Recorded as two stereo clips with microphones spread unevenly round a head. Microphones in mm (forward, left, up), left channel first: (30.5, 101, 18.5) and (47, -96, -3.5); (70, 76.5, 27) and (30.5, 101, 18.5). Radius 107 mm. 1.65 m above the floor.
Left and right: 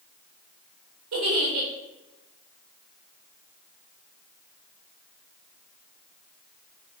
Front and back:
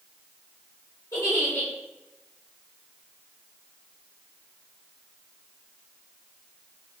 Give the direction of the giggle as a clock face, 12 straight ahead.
3 o'clock.